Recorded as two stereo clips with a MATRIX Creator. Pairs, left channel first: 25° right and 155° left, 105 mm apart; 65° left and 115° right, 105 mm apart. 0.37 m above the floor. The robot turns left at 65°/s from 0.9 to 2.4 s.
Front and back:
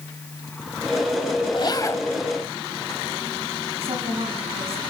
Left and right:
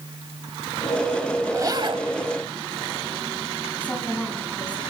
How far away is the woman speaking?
About 3.5 m.